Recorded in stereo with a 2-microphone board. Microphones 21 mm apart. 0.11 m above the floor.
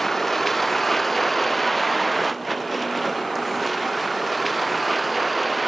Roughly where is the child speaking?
No child speaking in this recording.